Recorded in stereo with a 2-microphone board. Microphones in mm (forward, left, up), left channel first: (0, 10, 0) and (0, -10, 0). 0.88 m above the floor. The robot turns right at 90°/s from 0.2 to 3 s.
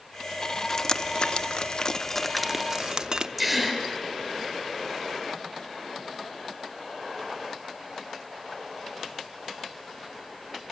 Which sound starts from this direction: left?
Dripping, at 0.7 s.